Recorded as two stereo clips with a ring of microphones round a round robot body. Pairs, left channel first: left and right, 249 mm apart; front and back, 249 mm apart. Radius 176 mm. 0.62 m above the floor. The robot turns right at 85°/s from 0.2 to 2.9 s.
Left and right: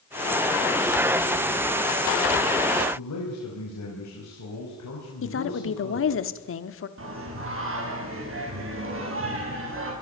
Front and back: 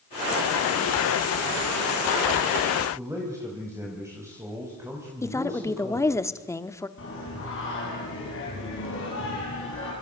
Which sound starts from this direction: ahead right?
Singing, at 7.0 s.